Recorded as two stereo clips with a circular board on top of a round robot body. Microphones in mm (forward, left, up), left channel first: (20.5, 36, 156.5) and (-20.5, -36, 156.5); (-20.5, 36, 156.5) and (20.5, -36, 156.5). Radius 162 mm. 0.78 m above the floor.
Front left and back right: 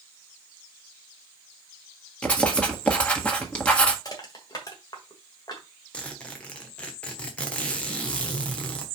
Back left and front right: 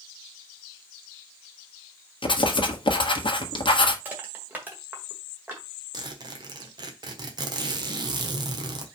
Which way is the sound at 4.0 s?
10° left.